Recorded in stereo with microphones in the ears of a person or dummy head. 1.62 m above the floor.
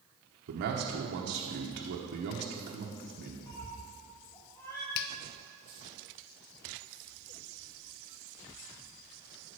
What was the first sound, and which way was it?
A man speaking, 55° right (ahead or behind).